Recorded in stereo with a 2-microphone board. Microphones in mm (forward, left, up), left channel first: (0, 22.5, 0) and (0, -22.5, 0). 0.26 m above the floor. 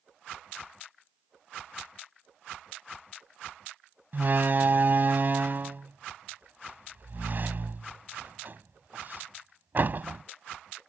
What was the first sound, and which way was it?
A door slam, 45° right (ahead or behind).